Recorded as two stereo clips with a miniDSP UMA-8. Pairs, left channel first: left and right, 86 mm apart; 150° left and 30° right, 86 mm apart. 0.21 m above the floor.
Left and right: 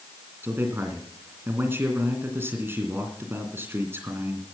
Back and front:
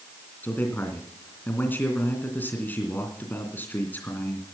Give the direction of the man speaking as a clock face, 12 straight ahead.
5 o'clock.